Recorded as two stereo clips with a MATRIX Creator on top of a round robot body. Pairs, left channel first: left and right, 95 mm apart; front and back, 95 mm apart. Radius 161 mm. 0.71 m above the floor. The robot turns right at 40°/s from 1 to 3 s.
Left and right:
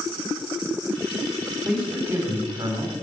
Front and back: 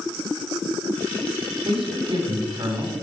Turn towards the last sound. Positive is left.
turn(degrees=-125)